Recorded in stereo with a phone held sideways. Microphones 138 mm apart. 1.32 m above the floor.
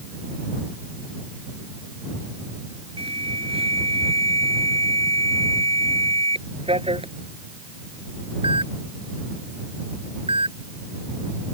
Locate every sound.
3.0 s an alarm: 45° right (ahead or behind)